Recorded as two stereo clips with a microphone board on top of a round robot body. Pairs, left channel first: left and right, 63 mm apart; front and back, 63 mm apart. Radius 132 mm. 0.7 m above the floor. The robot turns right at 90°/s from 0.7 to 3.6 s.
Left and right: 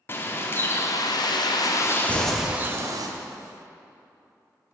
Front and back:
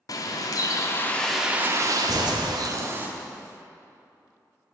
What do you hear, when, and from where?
0.1 s a bird: 35° left, 0.8 m; by 3.1 s 115° right, 0.8 m
2.1 s a thud: 30° left, 3 m; by 2.5 s 65° left, 3 m